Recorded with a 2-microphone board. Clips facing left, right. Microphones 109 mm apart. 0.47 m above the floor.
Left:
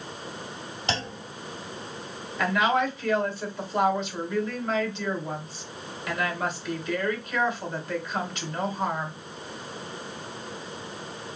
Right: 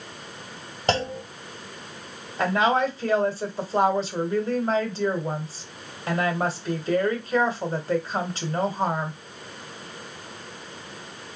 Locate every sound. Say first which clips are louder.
0.9 s a clunk: right 8 dB; 45° right (ahead or behind), 1.6 m
2.4 s a woman speaking: right 2 dB; 35° right (ahead or behind), 1.7 m